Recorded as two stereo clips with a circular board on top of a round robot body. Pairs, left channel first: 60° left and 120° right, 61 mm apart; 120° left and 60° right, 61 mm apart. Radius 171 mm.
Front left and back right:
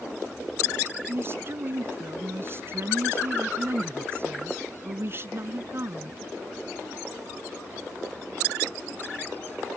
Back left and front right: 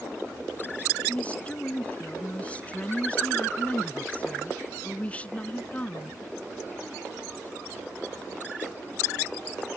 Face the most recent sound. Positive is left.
turn(degrees=-170)